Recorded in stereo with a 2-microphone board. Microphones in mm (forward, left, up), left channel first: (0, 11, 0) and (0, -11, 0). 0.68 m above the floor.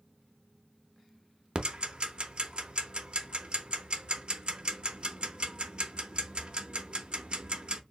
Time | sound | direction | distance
1.6 | ticking | 50° right (ahead or behind) | 0.7 m